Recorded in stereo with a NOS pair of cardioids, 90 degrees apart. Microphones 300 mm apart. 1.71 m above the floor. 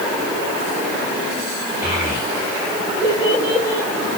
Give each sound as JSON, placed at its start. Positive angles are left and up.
{"t": 1.8, "sound": "a child speaking", "azimuth_deg": -10, "distance_m": 3.5}